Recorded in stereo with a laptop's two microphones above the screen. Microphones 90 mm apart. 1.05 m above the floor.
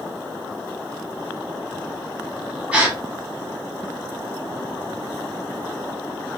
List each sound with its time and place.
2.7 s a gasp: 15° right (ahead or behind), 0.8 m